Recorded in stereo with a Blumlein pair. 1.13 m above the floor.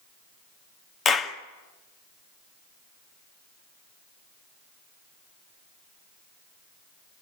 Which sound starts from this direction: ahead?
A clap, at 1.1 s.